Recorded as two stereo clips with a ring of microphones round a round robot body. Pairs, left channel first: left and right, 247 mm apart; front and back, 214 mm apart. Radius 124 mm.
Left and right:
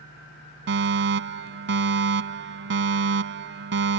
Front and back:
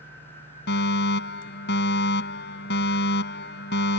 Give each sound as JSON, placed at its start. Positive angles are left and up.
{"t": 0.7, "sound": "a fire alarm", "azimuth_deg": -45}